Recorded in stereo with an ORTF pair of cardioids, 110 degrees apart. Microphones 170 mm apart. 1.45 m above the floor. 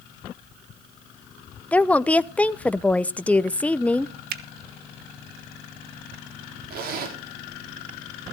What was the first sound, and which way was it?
A woman speaking, 10° left.